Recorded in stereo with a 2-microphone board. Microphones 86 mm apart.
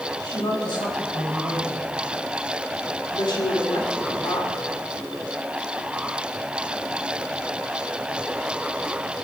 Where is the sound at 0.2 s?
55° left (ahead or behind), 5.5 m.